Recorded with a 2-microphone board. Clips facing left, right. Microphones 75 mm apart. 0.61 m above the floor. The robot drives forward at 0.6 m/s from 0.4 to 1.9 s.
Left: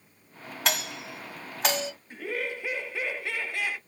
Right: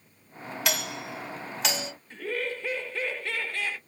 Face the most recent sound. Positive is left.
turn(degrees=15)  # may be behind; listen again after turning